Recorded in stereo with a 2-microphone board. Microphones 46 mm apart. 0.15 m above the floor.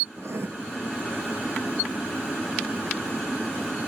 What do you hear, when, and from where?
0.2 s writing: 75° right (ahead or behind), 0.6 m